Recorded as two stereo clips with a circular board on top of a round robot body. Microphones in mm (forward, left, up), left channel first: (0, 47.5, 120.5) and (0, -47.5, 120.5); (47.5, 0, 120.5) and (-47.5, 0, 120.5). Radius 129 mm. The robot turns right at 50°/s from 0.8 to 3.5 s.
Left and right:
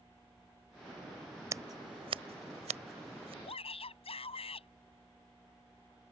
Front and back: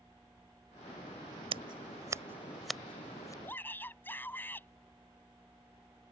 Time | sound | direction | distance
1.5 | scissors | 150° right | ?
3.4 | a shout | 65° left | ?